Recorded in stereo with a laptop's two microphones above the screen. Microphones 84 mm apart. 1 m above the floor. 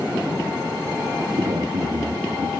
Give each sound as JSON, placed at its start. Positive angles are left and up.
{"t": 1.4, "sound": "a man speaking", "side_deg": -60, "distance_m": 2.0}